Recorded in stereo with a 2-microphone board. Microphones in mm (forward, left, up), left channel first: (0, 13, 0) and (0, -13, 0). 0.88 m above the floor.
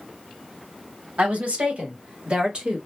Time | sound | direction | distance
1.2 | a woman speaking | 60° right (ahead or behind) | 1.6 m